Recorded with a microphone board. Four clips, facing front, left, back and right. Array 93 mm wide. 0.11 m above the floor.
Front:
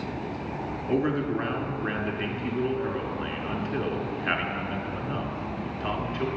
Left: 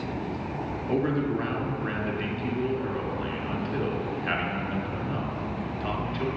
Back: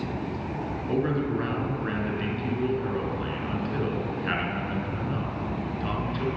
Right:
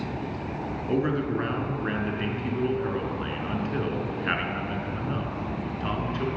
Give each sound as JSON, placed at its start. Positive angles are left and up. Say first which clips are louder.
{"t": 0.9, "sound": "a man speaking", "louder": "even, front 1 dB", "azimuth_deg": -45, "distance_m": 1.4}